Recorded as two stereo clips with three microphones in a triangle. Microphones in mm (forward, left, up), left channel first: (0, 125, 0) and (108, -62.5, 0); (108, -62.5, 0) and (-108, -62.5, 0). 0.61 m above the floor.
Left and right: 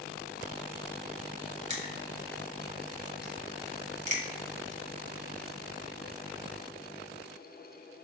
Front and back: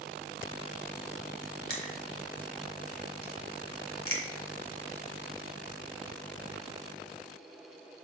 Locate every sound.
1.7 s crushing: 5° right, 1.6 m